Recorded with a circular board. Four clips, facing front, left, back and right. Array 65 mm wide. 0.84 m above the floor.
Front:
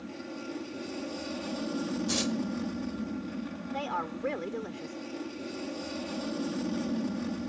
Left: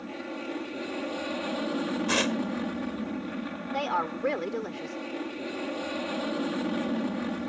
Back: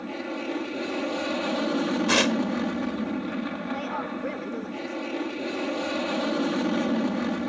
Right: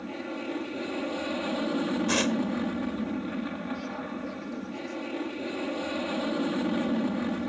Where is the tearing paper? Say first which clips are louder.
Left 1 dB, back 11 dB; 170° left.